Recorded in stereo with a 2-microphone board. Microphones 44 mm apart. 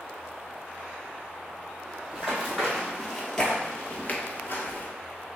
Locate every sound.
2.1 s running footsteps: 15° right (ahead or behind), 1.8 m; by 4.9 s 50° left (ahead or behind), 1.2 m
4.1 s a finger snap: 40° left (ahead or behind), 0.7 m